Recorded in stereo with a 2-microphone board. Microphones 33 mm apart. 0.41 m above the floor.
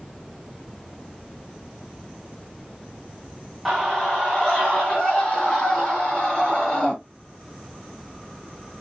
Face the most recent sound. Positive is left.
turn(degrees=25)  # may be behind; listen again after turning